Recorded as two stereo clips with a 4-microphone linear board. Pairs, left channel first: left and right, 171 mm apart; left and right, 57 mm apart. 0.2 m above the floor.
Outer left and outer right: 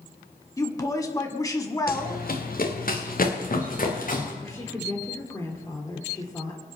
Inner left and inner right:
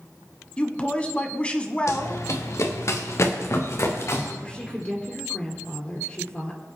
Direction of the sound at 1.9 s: 60° left (ahead or behind).